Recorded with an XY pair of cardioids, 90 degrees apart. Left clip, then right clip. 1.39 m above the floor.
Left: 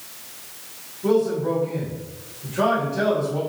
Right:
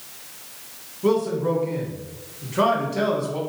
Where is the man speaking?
65° right, 1.3 m.